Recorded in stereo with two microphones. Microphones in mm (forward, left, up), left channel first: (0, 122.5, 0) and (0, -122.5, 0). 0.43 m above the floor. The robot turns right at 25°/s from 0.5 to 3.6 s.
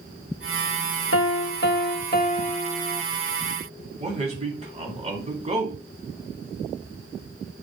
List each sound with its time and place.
1.1 s a piano: 115° left, 0.6 m; by 3.0 s 160° left, 0.6 m
4.0 s a man speaking: 25° right (ahead or behind), 3 m